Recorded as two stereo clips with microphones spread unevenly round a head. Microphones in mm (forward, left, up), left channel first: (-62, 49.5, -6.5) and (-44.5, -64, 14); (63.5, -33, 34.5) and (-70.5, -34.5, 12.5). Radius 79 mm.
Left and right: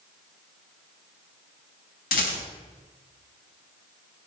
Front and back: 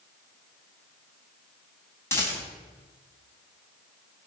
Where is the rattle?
75° left, 3.5 m.